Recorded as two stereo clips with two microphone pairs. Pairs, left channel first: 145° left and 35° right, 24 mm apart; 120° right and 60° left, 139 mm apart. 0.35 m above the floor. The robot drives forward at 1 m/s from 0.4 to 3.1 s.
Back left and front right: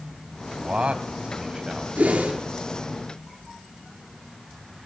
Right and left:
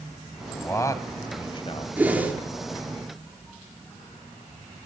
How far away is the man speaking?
About 2.5 m.